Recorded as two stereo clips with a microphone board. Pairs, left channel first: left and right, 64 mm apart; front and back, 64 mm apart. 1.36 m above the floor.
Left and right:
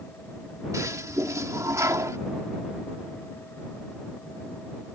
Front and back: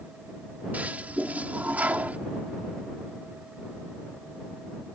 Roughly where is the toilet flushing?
Behind right.